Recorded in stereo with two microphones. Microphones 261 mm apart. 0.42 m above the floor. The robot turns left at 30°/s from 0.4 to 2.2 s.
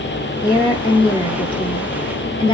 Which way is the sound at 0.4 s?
15° left (ahead or behind).